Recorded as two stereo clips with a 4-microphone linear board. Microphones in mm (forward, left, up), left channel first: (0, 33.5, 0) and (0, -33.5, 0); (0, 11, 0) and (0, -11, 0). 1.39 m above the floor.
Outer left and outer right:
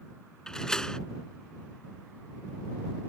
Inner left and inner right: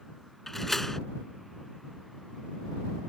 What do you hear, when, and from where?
0.5 s a door slam: 10° left (ahead or behind)